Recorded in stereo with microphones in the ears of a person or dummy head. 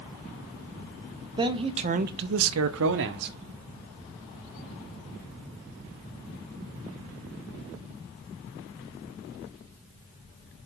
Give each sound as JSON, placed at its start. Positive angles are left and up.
{"t": 1.4, "sound": "a man speaking", "side_deg": -20, "distance_m": 0.9}